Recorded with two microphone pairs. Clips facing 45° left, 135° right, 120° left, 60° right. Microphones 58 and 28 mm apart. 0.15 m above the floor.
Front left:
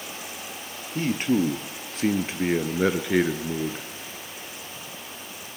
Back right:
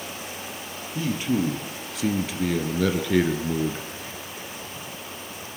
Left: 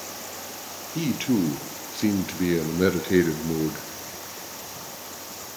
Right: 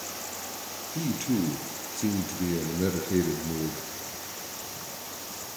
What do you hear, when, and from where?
0.9 s a man speaking: 75° left, 3 m; by 3.9 s 135° left, 1.5 m